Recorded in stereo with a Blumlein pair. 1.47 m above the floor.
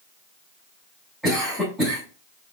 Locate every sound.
1.2 s a cough: 5° right, 3 m